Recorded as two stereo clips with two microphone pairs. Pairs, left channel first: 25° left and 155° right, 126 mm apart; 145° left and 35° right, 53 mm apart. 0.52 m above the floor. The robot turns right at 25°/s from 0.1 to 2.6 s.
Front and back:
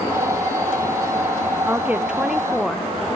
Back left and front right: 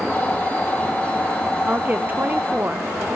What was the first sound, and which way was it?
A woman speaking, 85° right.